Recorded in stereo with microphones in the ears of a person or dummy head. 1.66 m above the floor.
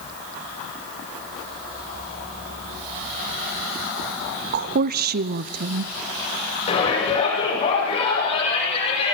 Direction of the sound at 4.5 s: 60° right (ahead or behind).